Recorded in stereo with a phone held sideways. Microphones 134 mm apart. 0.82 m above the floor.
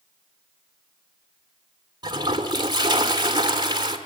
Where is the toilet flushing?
30° right (ahead or behind), 1.6 m.